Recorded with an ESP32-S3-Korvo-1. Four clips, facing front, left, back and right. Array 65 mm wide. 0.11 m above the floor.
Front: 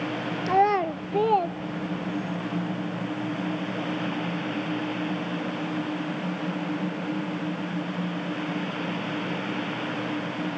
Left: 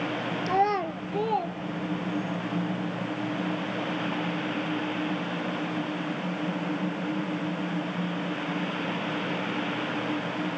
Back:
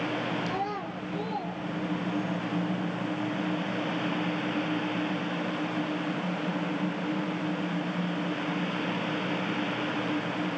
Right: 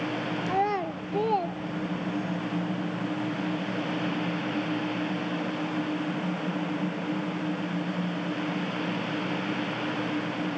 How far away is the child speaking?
About 1.0 m.